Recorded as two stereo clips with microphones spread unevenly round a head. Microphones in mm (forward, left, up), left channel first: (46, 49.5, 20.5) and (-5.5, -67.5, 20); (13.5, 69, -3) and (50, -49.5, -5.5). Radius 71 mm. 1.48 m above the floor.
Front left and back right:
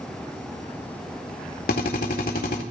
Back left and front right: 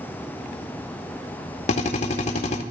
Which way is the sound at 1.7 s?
90° left.